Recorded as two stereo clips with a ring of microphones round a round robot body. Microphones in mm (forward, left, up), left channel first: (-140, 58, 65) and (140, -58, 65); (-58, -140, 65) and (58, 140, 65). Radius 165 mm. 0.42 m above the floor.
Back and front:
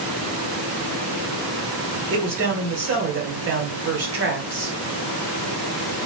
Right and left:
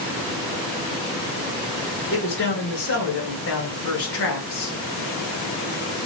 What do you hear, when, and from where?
2.1 s a man speaking: 70° right, 2 m